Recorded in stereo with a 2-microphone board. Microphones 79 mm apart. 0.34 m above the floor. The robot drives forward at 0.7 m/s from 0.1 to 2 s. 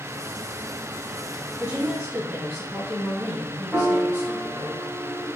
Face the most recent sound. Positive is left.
turn(degrees=-10)  # may be behind; listen again after turning